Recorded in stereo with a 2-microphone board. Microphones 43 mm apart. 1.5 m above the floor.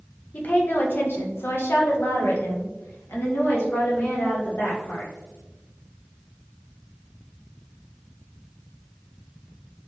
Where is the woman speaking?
40° left (ahead or behind), 0.9 m; by 5.1 s 60° left (ahead or behind), 2.5 m.